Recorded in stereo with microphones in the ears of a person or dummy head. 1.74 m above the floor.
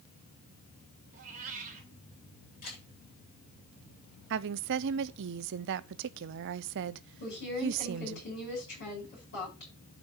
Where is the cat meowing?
40° right (ahead or behind), 2.5 m.